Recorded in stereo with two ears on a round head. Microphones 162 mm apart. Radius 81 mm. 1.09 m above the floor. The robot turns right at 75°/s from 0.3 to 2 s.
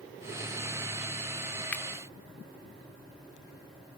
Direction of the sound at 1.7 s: 10° left (ahead or behind).